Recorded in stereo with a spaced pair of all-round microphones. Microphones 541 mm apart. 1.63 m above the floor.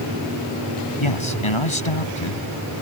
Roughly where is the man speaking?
Left.